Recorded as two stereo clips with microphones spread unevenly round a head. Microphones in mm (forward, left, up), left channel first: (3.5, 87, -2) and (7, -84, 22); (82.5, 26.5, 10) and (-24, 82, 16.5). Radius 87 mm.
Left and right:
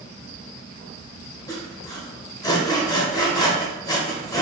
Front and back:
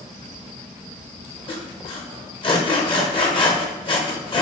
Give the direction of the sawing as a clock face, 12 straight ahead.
11 o'clock.